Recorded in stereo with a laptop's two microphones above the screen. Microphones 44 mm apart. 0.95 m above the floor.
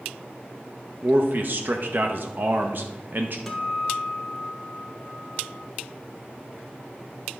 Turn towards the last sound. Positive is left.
turn(degrees=5)  # may be behind; listen again after turning